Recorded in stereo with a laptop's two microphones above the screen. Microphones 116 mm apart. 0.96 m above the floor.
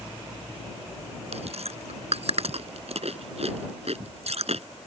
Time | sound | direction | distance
1.3 | chewing | 65° right (ahead or behind) | ?